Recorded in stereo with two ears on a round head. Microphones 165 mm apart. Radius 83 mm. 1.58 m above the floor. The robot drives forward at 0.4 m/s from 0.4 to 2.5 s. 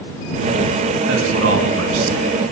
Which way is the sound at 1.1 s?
70° right (ahead or behind).